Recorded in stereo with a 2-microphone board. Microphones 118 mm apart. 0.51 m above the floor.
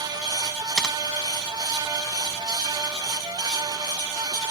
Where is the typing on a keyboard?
5° left (ahead or behind).